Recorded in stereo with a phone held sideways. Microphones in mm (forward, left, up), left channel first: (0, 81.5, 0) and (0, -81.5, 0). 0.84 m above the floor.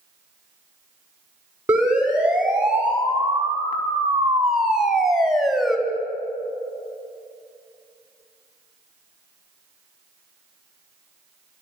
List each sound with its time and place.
1.7 s a siren: 5° right (ahead or behind), 6.5 m; by 5.8 s centre (ahead or behind), 3.5 m